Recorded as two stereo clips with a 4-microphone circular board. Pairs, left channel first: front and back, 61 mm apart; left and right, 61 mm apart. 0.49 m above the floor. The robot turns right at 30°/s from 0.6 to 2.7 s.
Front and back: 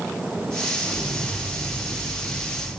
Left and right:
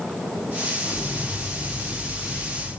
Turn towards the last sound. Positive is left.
turn(degrees=-145)